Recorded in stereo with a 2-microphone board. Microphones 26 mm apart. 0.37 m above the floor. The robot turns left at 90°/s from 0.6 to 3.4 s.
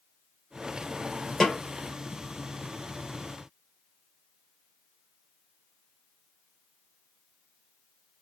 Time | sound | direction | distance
1.4 | a snare drum | 15° left (ahead or behind) | 1.3 m